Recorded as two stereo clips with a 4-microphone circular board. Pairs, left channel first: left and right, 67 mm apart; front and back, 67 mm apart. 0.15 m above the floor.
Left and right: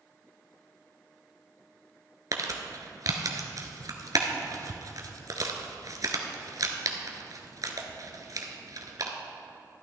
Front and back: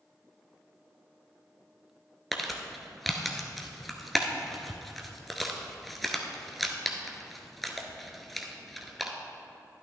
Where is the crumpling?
90° right, 1.1 m.